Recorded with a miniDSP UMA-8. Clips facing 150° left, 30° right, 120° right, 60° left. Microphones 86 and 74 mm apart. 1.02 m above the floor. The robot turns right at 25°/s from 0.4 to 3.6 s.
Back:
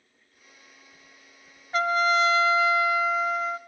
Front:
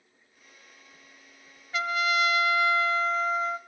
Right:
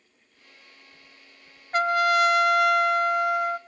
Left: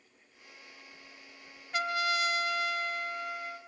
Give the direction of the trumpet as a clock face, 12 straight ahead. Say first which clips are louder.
Back 5 dB, right 10 dB; 5 o'clock.